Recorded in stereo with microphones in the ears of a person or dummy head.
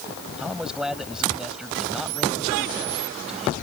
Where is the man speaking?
Centre (ahead or behind).